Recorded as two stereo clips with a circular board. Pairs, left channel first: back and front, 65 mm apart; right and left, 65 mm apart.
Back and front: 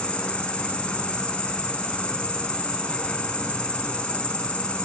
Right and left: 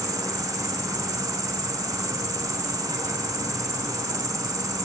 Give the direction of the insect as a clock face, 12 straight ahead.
8 o'clock.